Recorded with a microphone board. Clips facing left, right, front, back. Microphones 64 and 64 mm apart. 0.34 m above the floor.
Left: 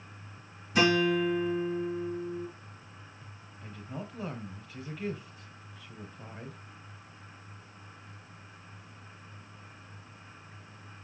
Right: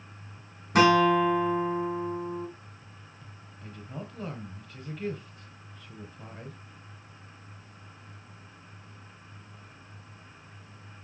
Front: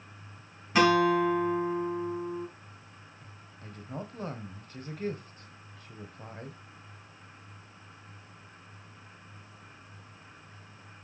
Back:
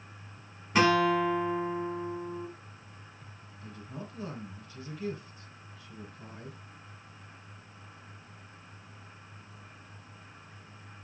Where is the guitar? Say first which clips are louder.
Right 5 dB, front 1 dB; 90° right, 3 m.